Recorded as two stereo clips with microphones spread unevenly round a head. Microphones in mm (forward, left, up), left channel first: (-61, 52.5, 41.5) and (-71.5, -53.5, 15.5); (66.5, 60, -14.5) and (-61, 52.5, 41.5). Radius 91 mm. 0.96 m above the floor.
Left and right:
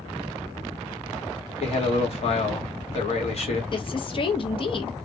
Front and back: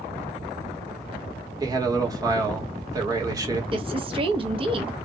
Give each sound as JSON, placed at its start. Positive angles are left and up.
{"t": 1.6, "sound": "a man speaking", "azimuth_deg": 110, "distance_m": 1.5}
{"t": 3.7, "sound": "a woman speaking", "azimuth_deg": 125, "distance_m": 1.0}